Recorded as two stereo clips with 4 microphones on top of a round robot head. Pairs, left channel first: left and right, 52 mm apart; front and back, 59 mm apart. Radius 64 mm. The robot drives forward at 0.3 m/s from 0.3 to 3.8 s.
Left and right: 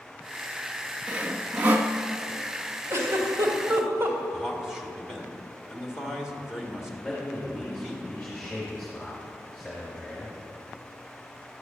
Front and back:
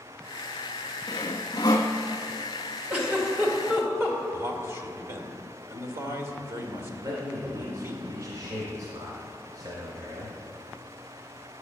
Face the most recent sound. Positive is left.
turn(degrees=165)